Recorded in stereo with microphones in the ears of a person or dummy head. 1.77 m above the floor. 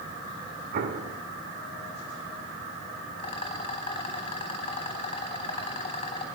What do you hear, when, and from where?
0.7 s an explosion: 50° right (ahead or behind), 2.0 m
3.2 s a rattle: 25° left (ahead or behind), 3.5 m